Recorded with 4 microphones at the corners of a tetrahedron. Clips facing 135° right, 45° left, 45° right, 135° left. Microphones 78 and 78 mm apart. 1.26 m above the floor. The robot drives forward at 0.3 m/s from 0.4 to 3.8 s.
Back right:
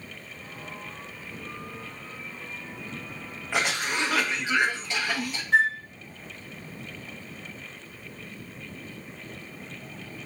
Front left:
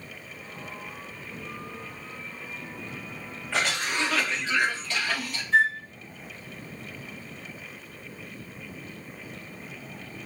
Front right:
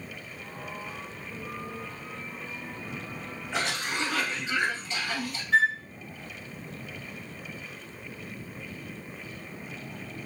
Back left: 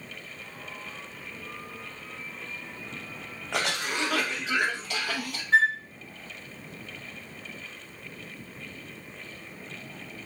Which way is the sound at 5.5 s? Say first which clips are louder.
Even, back left 1 dB; 170° right.